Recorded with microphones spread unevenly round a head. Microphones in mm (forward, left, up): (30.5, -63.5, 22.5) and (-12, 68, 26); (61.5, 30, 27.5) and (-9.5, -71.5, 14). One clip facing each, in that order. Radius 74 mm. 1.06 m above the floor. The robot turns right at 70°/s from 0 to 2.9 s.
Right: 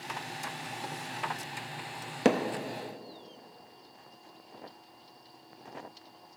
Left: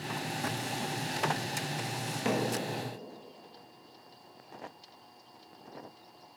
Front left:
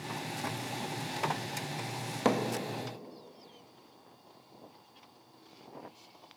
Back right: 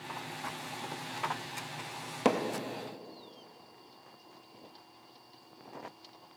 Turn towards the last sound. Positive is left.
turn(degrees=0)